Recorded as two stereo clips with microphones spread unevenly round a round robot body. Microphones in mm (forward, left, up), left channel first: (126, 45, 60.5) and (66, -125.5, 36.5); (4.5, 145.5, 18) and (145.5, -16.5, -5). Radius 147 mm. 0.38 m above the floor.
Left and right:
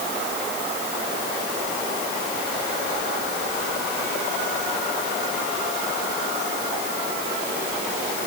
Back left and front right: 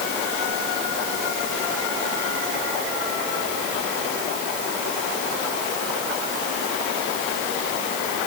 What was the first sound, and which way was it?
Only background noise.